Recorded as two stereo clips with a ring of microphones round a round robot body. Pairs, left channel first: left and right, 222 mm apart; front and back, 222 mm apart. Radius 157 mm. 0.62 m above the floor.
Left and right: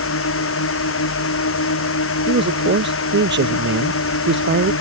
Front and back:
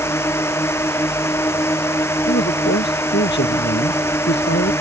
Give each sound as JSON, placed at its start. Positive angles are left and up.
{"t": 0.0, "sound": "a drone", "azimuth_deg": 80}
{"t": 2.3, "sound": "a man speaking", "azimuth_deg": -60}